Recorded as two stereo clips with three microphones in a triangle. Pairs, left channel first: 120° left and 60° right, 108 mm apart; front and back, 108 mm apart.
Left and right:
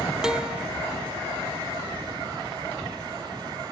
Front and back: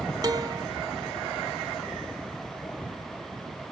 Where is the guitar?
140° right, 0.6 m.